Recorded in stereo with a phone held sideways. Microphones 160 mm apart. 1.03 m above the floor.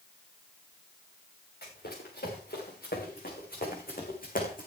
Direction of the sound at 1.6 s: 75° left (ahead or behind).